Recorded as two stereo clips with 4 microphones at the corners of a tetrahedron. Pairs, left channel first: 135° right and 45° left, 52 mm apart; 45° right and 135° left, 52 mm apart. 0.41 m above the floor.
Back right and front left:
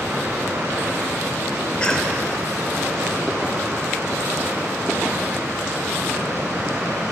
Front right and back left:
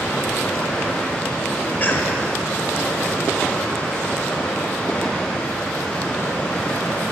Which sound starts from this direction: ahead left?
Running water, at 0.0 s.